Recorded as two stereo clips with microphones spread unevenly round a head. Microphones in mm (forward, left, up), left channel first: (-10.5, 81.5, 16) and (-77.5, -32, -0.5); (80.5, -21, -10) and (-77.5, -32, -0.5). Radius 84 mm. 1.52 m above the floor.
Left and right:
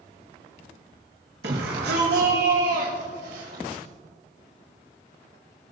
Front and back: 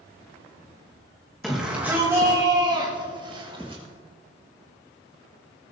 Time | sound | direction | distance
1.4 | a shout | 85° right | 1.6 m